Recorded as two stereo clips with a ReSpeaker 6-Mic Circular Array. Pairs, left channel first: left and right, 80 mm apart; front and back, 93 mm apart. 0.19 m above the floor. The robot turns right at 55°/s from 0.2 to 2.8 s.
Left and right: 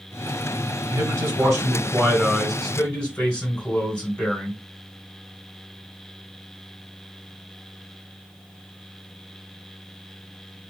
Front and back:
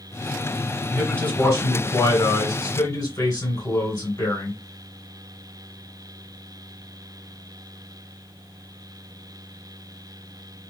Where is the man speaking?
85° right, 2 m; by 4.6 s 20° left, 2 m.